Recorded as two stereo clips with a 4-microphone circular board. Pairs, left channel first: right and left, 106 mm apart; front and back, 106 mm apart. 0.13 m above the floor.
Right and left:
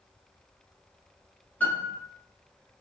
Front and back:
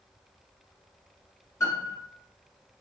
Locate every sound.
1.6 s a piano: 30° right, 1.9 m